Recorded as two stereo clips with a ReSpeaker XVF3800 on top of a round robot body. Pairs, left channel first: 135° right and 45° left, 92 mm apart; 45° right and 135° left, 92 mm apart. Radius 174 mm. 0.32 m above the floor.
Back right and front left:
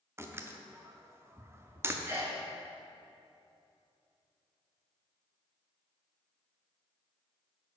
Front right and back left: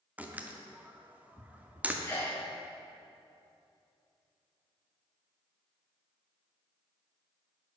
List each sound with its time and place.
0.2 s a door slam: 75° left, 1.0 m
2.0 s a sneeze: 5° left, 1.4 m